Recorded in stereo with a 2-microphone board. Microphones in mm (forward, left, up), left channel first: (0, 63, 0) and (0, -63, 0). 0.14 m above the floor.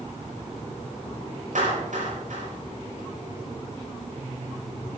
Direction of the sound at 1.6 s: 75° right (ahead or behind).